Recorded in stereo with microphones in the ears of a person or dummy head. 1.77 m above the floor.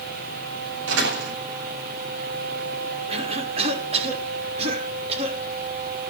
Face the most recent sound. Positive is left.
turn(degrees=-35)  # may be behind; listen again after turning